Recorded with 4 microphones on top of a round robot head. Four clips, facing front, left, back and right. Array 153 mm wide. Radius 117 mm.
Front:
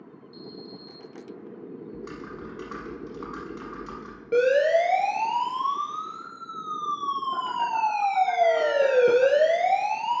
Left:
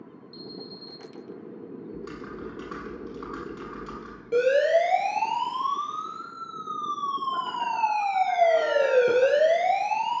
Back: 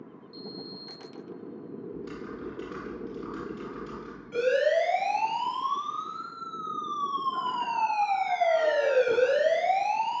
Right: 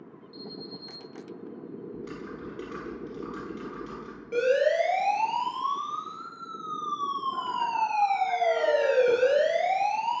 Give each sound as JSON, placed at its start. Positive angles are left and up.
{"t": 0.3, "sound": "an alarm", "azimuth_deg": 30, "distance_m": 6.0}
{"t": 1.9, "sound": "typing on a keyboard", "azimuth_deg": 35, "distance_m": 6.5}
{"t": 4.3, "sound": "a siren", "azimuth_deg": 15, "distance_m": 9.5}